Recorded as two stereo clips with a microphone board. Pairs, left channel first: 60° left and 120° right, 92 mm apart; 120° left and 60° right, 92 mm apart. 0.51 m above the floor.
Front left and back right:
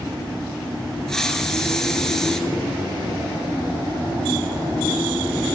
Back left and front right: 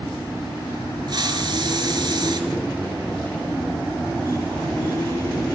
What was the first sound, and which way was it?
A hiss, 25° right.